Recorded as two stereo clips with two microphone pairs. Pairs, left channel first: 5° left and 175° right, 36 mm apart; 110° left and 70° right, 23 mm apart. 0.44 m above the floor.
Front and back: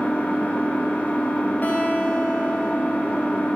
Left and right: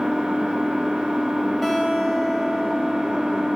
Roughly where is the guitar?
Ahead left.